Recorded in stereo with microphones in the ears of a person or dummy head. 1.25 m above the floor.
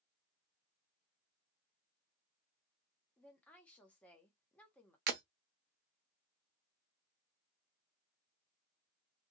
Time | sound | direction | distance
3.2 | a woman speaking | 5° left (ahead or behind) | 0.9 m
5.1 | breaking glass | 55° right (ahead or behind) | 0.8 m